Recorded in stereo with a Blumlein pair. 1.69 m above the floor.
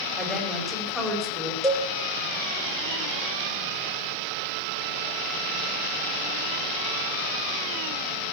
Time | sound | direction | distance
0.2 | a woman speaking | 5° right | 5.5 m
1.6 | a cowbell | straight ahead | 2.5 m